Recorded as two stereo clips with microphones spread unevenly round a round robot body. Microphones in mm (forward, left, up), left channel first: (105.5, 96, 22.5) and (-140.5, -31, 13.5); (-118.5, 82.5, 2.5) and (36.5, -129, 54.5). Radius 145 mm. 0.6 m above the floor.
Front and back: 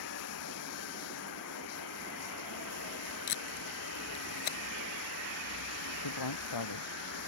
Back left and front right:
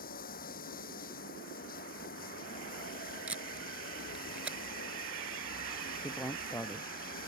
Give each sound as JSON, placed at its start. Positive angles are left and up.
{"t": 0.0, "sound": "running water", "azimuth_deg": 65}
{"t": 3.3, "sound": "tape being pulled", "azimuth_deg": 30}
{"t": 6.0, "sound": "a man speaking", "azimuth_deg": 45}